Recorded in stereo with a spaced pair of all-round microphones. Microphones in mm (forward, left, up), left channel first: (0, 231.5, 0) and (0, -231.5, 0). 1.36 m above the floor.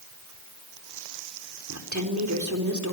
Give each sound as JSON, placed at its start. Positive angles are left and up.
{"t": 1.7, "sound": "a woman speaking", "side_deg": -35, "distance_m": 4.5}